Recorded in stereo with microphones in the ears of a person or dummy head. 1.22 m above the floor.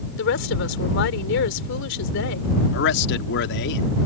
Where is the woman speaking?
75° left (ahead or behind).